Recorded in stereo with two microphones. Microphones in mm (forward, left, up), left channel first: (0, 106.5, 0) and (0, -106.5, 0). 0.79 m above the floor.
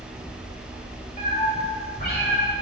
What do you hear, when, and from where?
1.2 s a cat meowing: 35° left (ahead or behind), 1.9 m; by 2.5 s 60° left (ahead or behind), 1.2 m